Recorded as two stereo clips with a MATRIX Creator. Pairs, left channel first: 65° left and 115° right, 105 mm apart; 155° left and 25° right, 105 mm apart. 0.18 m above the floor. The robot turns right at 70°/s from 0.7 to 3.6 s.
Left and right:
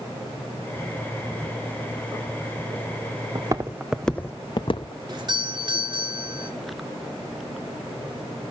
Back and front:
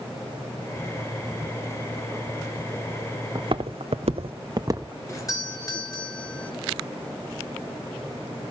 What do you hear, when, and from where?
3.4 s footsteps: 75° right, 1.1 m; by 5.0 s 45° left, 1.0 m
5.1 s a doorbell: 150° right, 3 m